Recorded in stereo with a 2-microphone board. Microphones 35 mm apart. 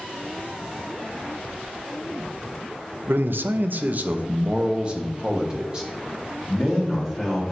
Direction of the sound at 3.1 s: 70° right (ahead or behind).